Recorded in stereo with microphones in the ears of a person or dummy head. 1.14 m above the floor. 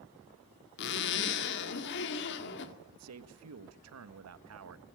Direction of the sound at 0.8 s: 60° left (ahead or behind).